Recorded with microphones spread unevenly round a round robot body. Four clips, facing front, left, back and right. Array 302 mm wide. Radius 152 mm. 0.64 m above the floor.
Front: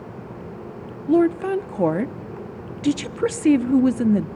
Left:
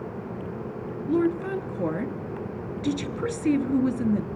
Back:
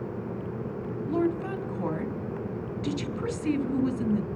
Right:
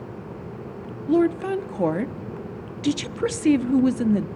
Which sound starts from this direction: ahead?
A woman speaking, at 1.1 s.